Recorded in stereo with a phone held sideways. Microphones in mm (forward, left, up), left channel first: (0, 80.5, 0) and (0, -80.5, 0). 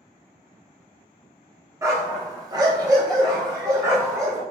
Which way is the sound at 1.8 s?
20° right (ahead or behind).